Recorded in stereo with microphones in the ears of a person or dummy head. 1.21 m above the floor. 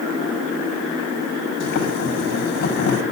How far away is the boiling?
About 6 m.